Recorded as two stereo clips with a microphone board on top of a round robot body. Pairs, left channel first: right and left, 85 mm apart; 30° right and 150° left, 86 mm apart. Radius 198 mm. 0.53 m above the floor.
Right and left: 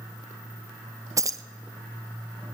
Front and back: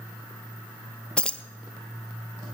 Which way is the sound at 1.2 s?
45° left.